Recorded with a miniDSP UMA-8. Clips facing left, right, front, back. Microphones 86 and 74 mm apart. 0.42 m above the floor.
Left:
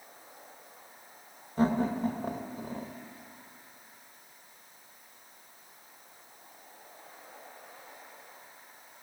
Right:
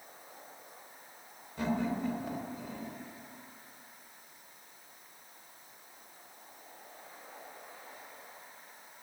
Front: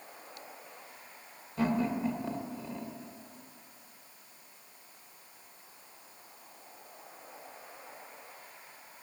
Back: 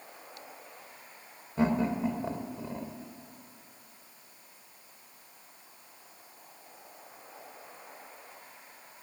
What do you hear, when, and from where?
1.6 s laughter: 125° left, 1.1 m